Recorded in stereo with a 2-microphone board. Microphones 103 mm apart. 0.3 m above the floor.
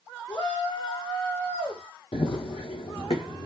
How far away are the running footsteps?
About 0.6 m.